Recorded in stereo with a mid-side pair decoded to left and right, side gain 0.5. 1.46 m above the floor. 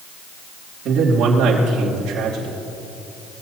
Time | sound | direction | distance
0.8 | a man speaking | 65° right | 2.5 m